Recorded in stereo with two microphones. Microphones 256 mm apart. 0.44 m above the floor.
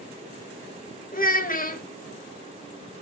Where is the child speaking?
35° left (ahead or behind), 1.2 m.